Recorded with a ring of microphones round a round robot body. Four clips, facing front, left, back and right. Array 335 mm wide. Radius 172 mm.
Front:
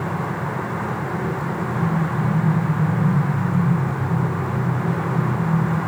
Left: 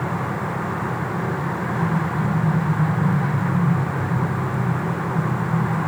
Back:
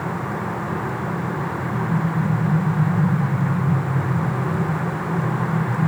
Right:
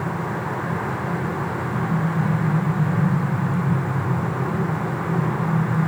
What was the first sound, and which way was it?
Only background noise.